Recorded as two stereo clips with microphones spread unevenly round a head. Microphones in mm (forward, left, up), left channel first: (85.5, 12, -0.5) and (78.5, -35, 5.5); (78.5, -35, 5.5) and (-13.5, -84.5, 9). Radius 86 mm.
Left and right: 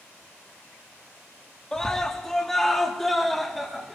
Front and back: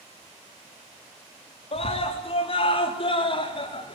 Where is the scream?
5° left, 4 m; by 4.0 s 10° right, 5 m.